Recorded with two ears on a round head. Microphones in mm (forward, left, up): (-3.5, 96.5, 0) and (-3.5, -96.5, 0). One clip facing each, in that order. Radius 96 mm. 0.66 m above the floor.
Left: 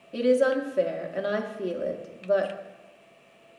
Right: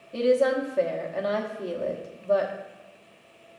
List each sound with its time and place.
0.1 s a woman speaking: 15° left (ahead or behind), 0.9 m